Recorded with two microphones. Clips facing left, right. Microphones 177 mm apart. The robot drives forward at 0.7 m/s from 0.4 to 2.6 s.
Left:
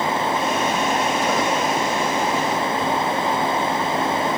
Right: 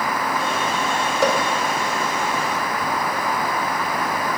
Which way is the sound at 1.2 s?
90° right.